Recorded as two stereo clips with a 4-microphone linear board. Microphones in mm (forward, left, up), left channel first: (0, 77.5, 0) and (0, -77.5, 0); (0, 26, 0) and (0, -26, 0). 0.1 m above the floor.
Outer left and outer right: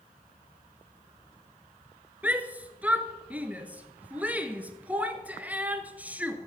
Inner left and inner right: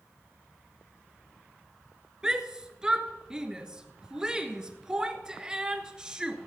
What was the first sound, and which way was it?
A shout, 10° right (ahead or behind).